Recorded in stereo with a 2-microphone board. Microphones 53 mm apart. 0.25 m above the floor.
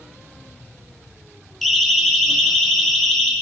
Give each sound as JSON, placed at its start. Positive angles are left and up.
{"t": 1.6, "sound": "a siren", "side_deg": 0, "distance_m": 4.0}